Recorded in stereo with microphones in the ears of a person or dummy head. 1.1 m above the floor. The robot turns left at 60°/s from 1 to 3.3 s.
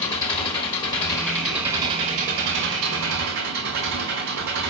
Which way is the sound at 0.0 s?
25° left.